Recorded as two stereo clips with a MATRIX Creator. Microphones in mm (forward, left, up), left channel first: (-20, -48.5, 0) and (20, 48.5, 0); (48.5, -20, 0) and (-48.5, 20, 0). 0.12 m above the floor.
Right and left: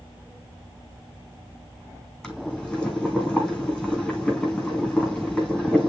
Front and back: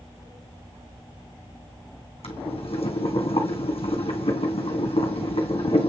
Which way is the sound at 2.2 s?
30° right.